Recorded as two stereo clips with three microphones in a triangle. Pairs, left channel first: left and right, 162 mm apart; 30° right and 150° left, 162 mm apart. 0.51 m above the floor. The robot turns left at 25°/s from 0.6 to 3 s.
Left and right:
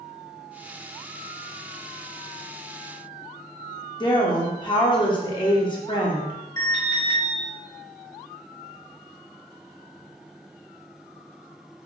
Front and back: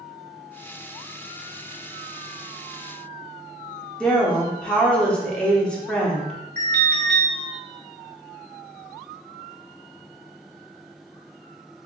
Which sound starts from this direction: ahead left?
A woman speaking, at 4.0 s.